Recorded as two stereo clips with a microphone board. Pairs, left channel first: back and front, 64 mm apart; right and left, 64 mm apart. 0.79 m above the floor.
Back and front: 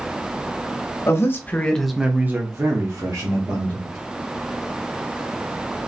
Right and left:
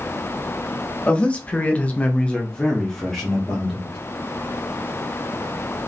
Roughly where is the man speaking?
Behind right.